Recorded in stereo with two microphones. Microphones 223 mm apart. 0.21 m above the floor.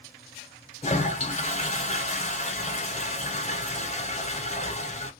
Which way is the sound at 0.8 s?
35° left (ahead or behind).